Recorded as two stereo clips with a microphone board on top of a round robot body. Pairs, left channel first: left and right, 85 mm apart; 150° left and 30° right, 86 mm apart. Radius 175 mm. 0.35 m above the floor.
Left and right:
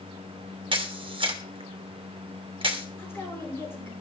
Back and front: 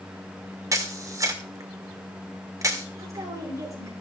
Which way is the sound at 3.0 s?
25° left.